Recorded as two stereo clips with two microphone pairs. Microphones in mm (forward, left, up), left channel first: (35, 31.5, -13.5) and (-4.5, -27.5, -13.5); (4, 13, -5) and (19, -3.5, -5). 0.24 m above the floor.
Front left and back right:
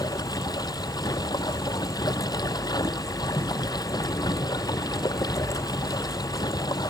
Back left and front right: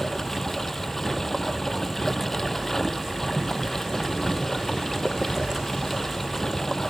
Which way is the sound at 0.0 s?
60° left.